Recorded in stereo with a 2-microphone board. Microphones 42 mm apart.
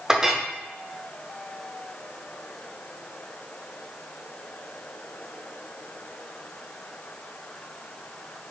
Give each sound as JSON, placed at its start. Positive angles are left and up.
{"t": 0.1, "sound": "a clink", "side_deg": -15, "distance_m": 0.5}